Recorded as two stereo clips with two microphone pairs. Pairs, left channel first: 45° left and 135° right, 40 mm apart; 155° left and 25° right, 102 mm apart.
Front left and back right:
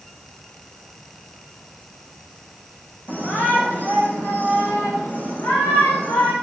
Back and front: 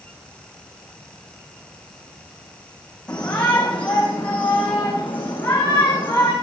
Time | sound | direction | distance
3.1 | a shout | 75° left | 8.5 m